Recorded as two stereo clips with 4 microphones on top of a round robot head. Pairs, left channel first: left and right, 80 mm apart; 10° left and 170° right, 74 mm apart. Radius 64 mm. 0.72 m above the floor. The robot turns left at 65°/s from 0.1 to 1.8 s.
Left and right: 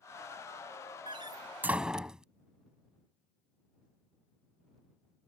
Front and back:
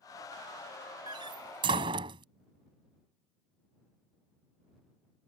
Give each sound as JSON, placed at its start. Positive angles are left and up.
{"t": 1.1, "sound": "a door slam", "azimuth_deg": -125}